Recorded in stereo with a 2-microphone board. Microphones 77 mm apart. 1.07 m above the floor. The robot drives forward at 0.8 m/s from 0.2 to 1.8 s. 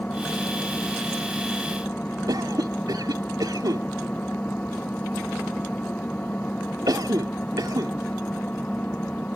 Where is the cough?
60° right (ahead or behind).